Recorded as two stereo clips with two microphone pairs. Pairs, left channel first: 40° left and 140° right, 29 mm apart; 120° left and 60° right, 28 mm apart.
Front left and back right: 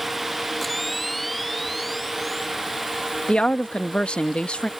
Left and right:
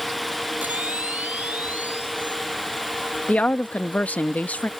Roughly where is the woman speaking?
Left.